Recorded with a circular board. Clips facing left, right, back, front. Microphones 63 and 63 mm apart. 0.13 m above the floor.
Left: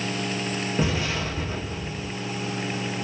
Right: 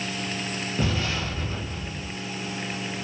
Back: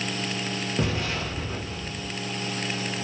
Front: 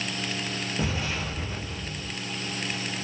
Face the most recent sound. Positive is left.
turn(degrees=160)